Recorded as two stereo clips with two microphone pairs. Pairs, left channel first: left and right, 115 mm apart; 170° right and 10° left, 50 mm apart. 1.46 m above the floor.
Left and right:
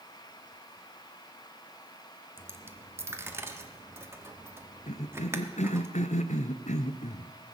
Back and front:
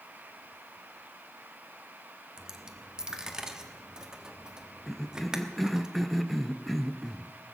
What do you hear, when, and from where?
2.4 s a dropped coin: 45° right, 1.0 m
4.9 s a cough: 95° left, 0.7 m